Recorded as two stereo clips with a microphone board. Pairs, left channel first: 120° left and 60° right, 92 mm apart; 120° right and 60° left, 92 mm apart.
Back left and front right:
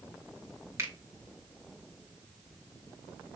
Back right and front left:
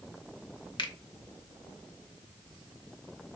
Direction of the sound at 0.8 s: 115° right.